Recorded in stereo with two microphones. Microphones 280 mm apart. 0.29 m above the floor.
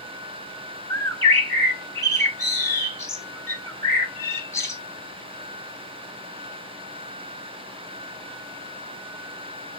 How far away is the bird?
About 0.7 m.